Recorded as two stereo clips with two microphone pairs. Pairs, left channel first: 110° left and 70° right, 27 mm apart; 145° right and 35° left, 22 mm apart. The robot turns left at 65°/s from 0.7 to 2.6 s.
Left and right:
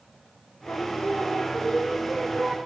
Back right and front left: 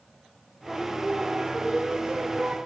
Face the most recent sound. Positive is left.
turn(degrees=-10)